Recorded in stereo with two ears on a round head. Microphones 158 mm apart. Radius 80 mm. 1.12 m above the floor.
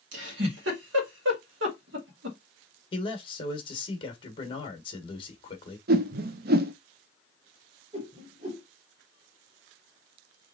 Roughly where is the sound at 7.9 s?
Right.